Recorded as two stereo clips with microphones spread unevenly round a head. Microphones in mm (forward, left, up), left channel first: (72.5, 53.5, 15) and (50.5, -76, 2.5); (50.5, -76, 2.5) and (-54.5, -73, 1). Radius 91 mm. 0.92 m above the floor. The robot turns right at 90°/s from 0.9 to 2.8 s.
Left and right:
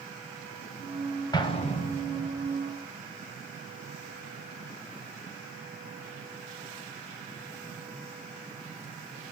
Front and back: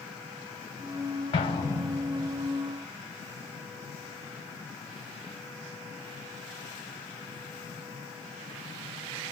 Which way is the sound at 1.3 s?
30° left.